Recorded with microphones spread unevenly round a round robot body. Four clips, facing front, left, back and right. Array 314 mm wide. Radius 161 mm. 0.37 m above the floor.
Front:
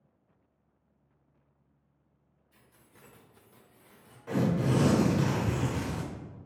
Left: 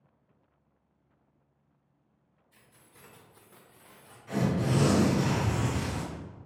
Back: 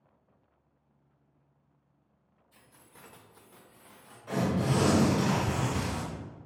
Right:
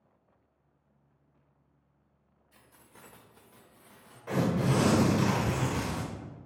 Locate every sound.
2.5 s keys jangling: 115° right, 1.3 m; by 4.2 s 55° left, 1.4 m
4.3 s tearing paper: 75° right, 0.8 m